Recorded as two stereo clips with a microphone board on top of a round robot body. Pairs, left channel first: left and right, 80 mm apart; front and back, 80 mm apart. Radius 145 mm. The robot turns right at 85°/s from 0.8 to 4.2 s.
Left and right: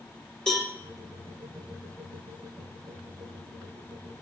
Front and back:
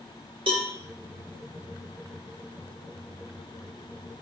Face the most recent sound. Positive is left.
turn(degrees=100)